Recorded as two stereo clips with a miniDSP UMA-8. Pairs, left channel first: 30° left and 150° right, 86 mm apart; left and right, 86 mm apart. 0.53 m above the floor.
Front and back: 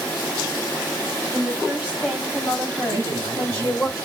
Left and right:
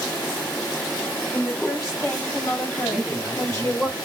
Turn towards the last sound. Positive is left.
turn(degrees=-160)